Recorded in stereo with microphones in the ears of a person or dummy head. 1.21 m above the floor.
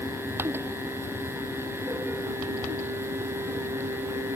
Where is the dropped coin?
I don't hear a dropped coin.